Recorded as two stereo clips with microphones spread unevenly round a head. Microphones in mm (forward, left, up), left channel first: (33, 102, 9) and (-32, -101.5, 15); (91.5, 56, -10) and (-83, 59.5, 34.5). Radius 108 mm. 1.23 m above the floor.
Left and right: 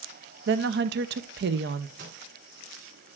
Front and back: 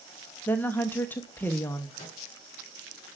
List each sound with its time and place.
0.5 s a woman speaking: 70° right, 0.6 m
2.0 s a microwave: 65° right, 3.5 m